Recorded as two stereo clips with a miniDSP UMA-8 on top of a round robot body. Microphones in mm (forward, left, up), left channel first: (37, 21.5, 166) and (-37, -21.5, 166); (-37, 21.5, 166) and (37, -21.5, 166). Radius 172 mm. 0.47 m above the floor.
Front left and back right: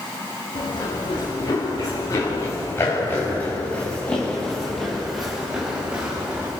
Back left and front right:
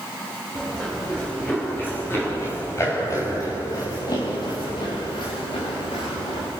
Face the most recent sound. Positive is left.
turn(degrees=140)